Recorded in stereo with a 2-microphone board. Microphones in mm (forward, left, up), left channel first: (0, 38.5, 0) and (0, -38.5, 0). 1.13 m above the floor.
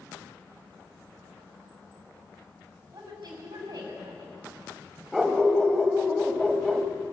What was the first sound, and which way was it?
A woman speaking, 55° right (ahead or behind).